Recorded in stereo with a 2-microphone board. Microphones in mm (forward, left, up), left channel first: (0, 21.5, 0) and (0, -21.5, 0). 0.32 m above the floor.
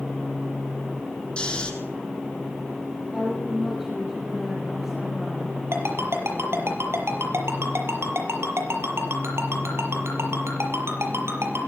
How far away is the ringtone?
About 6 m.